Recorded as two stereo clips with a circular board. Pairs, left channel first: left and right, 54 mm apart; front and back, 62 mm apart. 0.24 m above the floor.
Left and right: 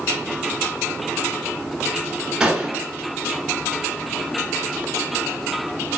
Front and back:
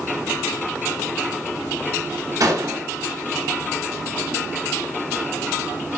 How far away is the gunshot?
About 1.2 m.